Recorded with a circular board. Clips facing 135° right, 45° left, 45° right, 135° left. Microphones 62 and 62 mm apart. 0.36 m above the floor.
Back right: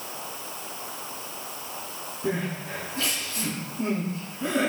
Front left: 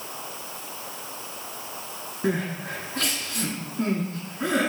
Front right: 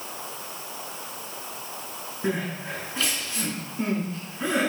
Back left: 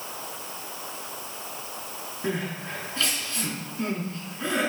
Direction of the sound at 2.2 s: 30° left.